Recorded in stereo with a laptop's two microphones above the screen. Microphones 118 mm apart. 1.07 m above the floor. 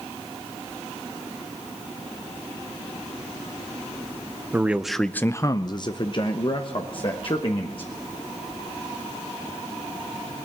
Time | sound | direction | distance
4.5 | a man speaking | 15° right (ahead or behind) | 0.6 m